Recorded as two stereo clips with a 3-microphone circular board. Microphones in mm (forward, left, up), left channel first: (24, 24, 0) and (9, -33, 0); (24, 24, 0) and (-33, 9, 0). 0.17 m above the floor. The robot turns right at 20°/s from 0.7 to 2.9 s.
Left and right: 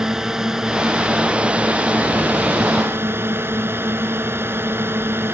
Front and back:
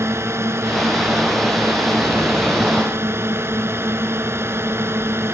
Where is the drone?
175° left; by 5.3 s 140° right.